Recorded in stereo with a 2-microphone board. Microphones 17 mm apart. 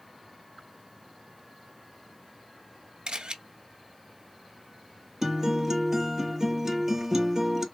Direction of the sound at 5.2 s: 20° right (ahead or behind).